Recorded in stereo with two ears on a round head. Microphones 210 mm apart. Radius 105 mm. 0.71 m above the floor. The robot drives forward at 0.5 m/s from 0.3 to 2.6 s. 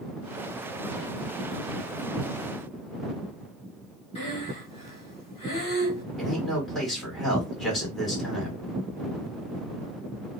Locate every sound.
4.2 s breathing: 25° left (ahead or behind), 1.7 m
6.2 s a man speaking: centre (ahead or behind), 2.0 m